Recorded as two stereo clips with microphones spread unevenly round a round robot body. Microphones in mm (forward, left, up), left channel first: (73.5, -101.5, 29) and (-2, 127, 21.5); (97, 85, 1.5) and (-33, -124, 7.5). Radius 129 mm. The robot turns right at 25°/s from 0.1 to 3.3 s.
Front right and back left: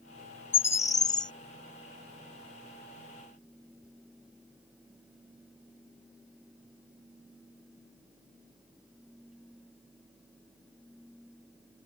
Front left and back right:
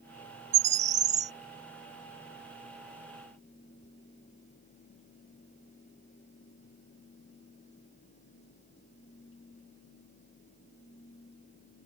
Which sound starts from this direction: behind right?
A bird, at 0.5 s.